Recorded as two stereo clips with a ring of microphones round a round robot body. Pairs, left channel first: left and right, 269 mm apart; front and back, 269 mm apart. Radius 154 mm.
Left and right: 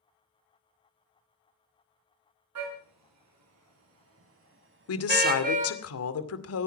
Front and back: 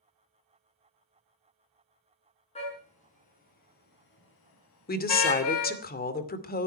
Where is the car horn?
70° right, 6 m; by 5.8 s 25° right, 3 m.